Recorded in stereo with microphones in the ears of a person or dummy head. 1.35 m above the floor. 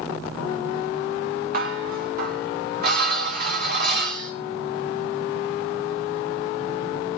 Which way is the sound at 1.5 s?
60° right (ahead or behind).